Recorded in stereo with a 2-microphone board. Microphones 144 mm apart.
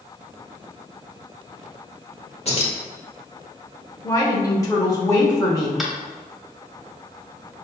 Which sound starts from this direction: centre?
Tapping, at 5.8 s.